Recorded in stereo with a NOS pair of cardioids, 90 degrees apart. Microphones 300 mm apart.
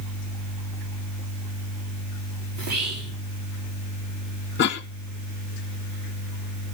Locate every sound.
2.5 s whispering: 60° right, 4.5 m
4.6 s a cough: 35° left, 0.9 m